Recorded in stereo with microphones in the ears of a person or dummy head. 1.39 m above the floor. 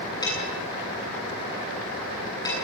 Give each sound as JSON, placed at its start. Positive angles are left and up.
{"t": 0.2, "sound": "dishes clattering", "side_deg": 25, "distance_m": 9.0}